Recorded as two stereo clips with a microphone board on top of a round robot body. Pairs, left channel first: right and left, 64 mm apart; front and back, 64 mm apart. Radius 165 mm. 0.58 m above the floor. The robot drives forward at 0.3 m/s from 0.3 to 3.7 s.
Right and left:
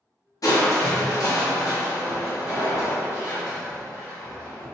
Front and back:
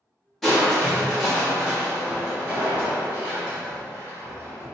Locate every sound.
0.4 s crushing: 85° right, 1.5 m; by 4.7 s 125° right, 1.8 m